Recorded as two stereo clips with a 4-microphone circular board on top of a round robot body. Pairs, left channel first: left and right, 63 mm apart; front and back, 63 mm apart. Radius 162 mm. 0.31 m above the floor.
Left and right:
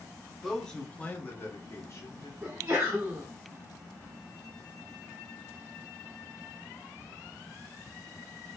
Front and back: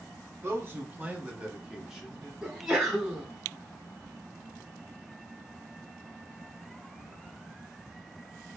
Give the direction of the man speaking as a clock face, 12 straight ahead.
6 o'clock.